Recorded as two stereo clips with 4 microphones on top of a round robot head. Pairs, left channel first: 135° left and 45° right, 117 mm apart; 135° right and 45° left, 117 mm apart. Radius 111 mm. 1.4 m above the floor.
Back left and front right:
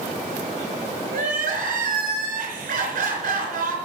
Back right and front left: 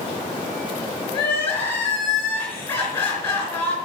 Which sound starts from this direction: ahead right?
Crying, at 1.1 s.